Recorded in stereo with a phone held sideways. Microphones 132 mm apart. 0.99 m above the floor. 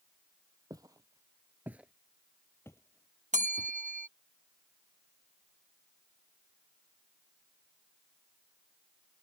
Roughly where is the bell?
Right.